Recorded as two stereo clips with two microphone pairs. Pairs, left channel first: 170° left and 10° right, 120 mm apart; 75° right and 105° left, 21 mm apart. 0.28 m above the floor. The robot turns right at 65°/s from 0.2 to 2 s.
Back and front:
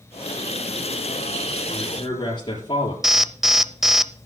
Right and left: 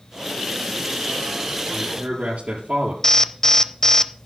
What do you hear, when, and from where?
1.7 s a man speaking: 105° left, 5 m; by 2.9 s 125° left, 5 m
3.0 s an alarm: 95° right, 0.8 m